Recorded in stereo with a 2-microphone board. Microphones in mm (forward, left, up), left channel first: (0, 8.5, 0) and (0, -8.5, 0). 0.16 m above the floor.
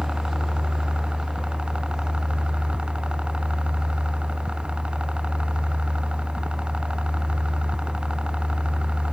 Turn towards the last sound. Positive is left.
turn(degrees=-80)